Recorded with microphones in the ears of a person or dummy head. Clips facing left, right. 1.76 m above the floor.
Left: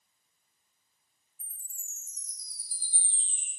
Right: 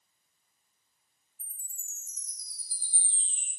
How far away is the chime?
About 1.1 m.